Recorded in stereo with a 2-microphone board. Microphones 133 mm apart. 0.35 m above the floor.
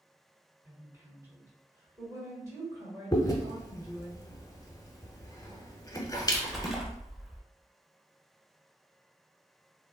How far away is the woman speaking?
About 1.3 m.